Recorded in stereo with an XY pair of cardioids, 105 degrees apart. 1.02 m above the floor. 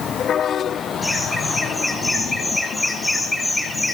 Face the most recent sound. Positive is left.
turn(degrees=5)